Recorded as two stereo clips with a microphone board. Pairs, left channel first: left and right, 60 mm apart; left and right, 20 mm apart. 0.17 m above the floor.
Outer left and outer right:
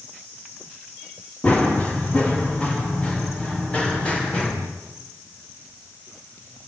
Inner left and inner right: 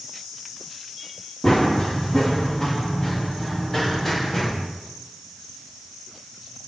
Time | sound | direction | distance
1.4 | running footsteps | 25° left (ahead or behind) | 4.5 m